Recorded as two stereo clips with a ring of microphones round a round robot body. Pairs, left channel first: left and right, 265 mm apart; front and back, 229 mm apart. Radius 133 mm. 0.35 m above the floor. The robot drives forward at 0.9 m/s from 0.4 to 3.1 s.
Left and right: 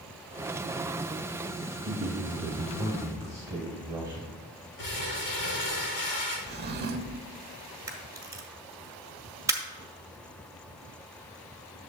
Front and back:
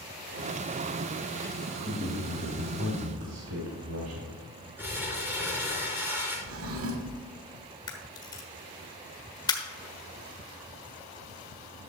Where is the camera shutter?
35° right, 1.3 m.